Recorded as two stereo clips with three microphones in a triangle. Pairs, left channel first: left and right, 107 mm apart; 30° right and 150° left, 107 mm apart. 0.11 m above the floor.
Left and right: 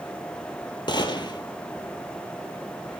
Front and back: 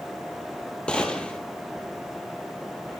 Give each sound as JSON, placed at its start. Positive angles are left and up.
{"t": 0.9, "sound": "a gunshot", "azimuth_deg": 50, "distance_m": 0.9}